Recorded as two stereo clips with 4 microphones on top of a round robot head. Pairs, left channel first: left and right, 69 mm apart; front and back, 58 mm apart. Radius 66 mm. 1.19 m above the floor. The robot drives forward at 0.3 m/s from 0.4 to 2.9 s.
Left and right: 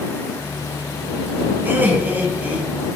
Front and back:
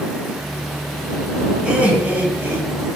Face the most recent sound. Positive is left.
turn(degrees=-155)